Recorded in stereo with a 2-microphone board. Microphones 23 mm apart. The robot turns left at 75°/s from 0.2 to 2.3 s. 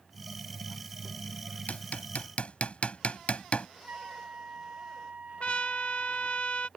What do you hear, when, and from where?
1.7 s hammering: 75° left (ahead or behind); by 3.7 s 55° left (ahead or behind)
3.9 s a flute: 70° right (ahead or behind)
5.4 s a trumpet: 50° left (ahead or behind)